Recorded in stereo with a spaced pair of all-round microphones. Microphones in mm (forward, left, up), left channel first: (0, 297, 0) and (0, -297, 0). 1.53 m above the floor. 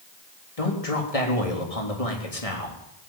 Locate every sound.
0.6 s a man speaking: 70° left (ahead or behind), 3.5 m